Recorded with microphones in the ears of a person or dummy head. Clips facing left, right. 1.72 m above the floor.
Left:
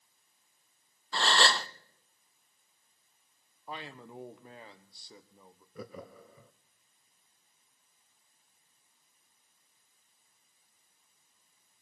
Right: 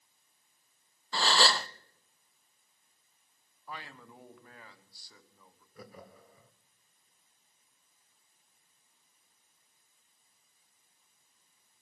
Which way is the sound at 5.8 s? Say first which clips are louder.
Left 6 dB; 65° left (ahead or behind).